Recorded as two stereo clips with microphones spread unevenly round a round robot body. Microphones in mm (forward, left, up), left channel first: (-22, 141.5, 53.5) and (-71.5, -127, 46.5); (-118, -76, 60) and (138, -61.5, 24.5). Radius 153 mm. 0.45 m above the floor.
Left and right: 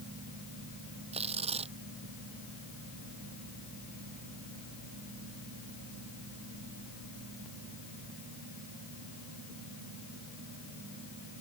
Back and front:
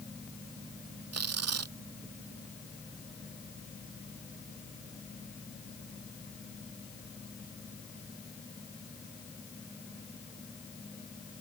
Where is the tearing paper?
30° right.